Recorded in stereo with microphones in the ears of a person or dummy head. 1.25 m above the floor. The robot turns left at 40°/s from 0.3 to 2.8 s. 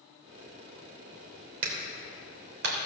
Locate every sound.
1.6 s a clap: 50° right (ahead or behind), 3 m; by 2.8 s 80° right, 3 m